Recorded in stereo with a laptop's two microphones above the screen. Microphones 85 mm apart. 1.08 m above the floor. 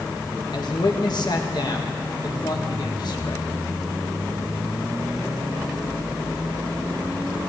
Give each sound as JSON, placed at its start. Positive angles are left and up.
{"t": 0.5, "sound": "a man speaking", "side_deg": 55, "distance_m": 1.6}